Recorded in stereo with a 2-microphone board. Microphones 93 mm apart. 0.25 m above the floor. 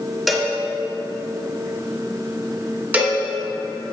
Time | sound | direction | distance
0.3 | a cowbell | centre (ahead or behind) | 0.9 m
2.9 | a cowbell | 20° right (ahead or behind) | 0.9 m